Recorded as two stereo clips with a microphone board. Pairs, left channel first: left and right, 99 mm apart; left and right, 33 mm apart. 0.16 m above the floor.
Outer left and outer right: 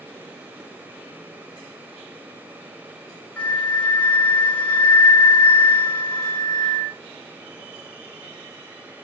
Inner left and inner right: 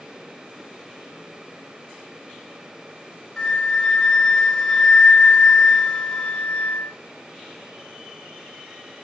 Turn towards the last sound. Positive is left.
turn(degrees=15)  # may be behind; listen again after turning